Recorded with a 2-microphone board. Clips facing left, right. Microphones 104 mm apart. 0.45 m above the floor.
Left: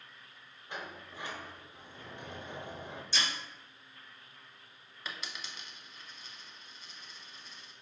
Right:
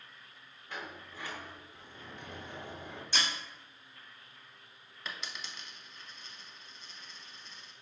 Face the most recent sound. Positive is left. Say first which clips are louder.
# even
turn(degrees=5)  # may be behind; listen again after turning